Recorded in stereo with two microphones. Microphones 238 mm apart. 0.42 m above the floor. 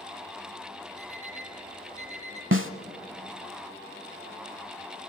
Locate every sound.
1.0 s an alarm clock: 30° right (ahead or behind), 3.5 m
2.5 s a snare drum: 60° right (ahead or behind), 0.8 m